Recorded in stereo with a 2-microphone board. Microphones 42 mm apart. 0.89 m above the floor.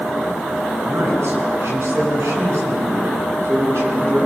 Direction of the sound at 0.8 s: 70° right (ahead or behind).